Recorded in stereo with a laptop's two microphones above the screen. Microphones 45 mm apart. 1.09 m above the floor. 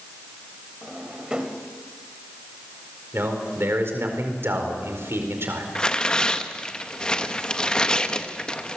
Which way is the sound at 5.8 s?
20° left (ahead or behind).